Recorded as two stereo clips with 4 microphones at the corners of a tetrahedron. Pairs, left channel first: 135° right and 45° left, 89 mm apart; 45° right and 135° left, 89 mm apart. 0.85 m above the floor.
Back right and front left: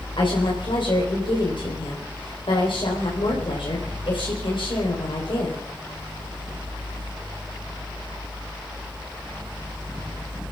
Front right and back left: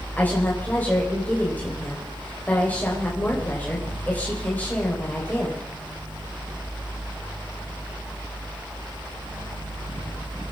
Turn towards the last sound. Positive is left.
turn(degrees=-115)